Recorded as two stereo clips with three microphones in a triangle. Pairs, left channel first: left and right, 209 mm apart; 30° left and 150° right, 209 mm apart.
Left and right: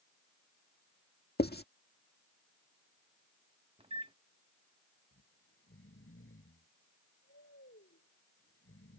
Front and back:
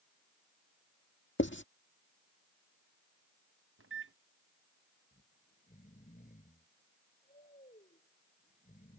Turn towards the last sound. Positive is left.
turn(degrees=80)